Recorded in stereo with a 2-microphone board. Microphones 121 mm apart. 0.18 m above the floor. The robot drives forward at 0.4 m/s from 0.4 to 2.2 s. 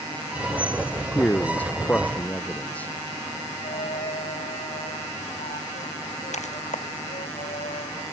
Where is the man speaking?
10° left (ahead or behind); by 2.9 s 15° left (ahead or behind).